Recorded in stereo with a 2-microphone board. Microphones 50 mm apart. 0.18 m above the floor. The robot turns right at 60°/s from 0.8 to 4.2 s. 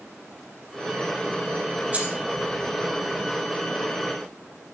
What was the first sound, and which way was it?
Keys jangling, 25° right (ahead or behind).